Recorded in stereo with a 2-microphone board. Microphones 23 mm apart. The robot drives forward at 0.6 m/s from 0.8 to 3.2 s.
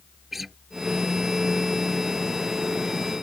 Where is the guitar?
10° right (ahead or behind).